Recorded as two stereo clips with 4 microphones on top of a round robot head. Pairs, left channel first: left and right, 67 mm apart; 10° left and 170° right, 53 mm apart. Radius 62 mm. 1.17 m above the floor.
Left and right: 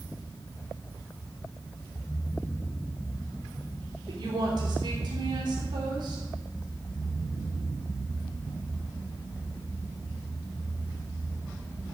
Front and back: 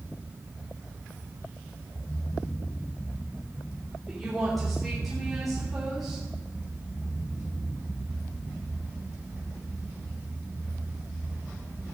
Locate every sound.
4.1 s a woman speaking: 80° right, 3.5 m